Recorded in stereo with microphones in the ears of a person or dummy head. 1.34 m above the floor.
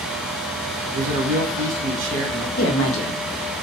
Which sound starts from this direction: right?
A man speaking, at 0.9 s.